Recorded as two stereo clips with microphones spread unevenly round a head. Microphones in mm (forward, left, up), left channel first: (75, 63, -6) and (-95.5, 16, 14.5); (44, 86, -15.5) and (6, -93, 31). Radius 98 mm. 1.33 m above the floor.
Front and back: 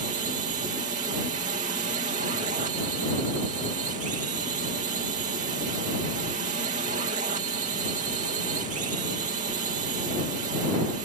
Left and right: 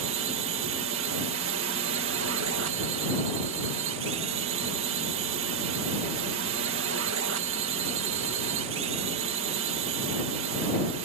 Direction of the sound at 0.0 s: 115° right.